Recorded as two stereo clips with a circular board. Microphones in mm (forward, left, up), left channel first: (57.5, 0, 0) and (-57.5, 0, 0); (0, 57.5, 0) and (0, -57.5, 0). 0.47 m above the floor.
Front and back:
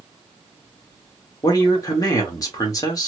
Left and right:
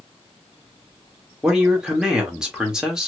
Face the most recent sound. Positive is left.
turn(degrees=-10)